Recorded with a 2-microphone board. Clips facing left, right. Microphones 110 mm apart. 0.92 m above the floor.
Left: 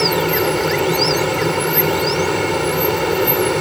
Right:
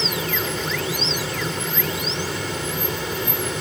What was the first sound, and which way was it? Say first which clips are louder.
An aircraft: left 10 dB; 65° left (ahead or behind).